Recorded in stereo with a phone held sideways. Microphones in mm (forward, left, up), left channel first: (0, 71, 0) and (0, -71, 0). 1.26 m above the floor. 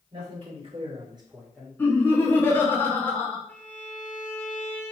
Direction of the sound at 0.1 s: 35° right (ahead or behind).